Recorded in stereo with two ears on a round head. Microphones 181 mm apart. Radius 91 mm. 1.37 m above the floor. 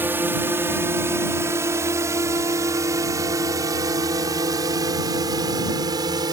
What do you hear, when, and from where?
0.0 s a drone: 10° right (ahead or behind); by 6.3 s 20° right (ahead or behind)